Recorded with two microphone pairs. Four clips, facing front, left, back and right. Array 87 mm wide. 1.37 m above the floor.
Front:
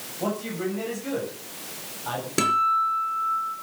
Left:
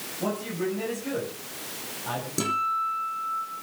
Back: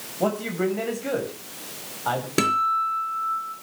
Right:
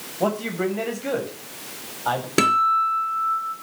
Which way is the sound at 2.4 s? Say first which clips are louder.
Right 8 dB, front 1 dB; 95° right.